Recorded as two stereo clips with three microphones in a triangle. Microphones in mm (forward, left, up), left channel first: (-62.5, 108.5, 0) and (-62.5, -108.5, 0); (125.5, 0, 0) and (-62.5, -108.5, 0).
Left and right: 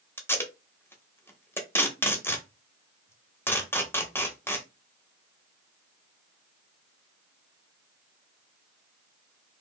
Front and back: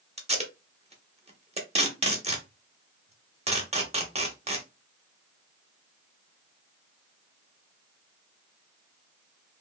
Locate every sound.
0.2 s tape being pulled: 165° left, 0.8 m